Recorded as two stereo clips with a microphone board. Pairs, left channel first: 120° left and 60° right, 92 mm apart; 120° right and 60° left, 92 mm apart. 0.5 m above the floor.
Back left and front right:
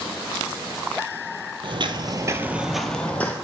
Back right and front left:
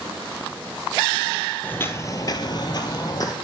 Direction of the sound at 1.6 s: 50° right.